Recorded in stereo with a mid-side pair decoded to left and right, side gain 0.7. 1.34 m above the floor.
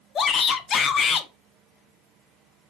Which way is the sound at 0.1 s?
35° left.